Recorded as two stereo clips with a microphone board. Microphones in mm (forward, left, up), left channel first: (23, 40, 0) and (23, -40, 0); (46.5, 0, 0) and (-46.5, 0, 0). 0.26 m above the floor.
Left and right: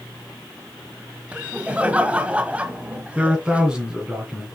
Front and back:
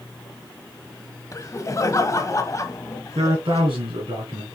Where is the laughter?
25° right, 1.2 m.